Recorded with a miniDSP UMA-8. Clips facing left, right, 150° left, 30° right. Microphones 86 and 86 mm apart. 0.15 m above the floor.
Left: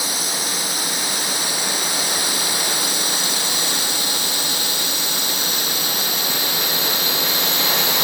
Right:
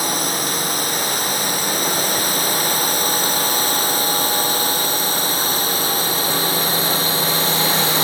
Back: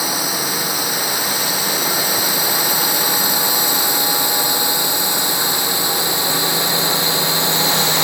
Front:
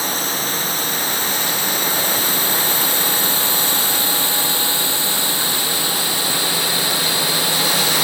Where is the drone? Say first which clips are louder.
Right 5 dB, back 1 dB; 130° right; by 8.1 s 145° right.